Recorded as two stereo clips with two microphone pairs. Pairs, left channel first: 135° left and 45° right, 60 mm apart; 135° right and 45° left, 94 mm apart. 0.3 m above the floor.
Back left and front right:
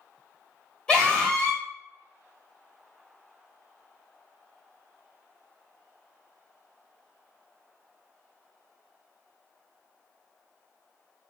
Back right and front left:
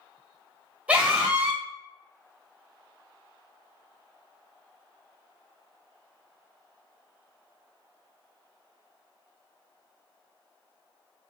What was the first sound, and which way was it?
A scream, 85° left.